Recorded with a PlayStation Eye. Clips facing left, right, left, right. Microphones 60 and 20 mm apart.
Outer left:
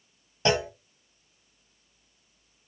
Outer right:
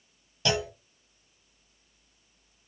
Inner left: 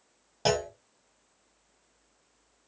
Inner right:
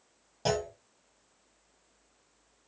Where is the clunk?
35° left (ahead or behind), 0.6 m.